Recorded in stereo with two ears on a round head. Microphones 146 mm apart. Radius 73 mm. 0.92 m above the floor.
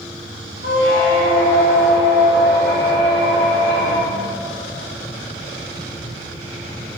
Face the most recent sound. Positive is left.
turn(degrees=70)  # may be behind; listen again after turning